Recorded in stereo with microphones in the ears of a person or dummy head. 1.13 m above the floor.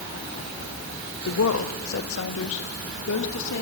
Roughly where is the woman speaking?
Left.